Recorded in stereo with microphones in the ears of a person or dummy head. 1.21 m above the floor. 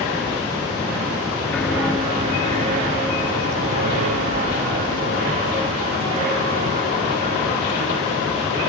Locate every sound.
1.5 s footsteps: 5° left (ahead or behind), 1.2 m; by 8.2 s 45° right (ahead or behind), 7 m